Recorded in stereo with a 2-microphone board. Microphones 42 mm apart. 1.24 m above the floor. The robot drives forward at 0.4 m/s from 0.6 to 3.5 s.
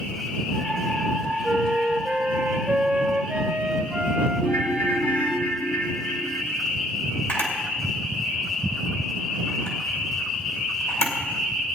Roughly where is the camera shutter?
Left.